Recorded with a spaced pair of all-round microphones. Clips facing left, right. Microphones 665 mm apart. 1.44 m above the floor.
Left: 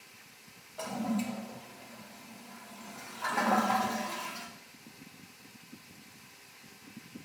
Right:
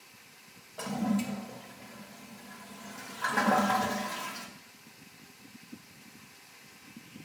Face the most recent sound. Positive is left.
turn(degrees=-50)  # may be behind; listen again after turning